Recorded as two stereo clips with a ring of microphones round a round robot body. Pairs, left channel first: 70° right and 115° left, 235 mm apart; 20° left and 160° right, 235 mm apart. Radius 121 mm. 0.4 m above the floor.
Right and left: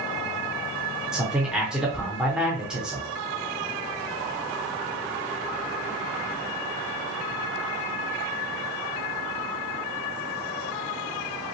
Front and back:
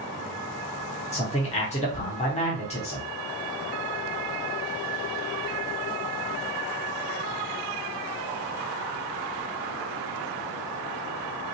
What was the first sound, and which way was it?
A man speaking, 30° left.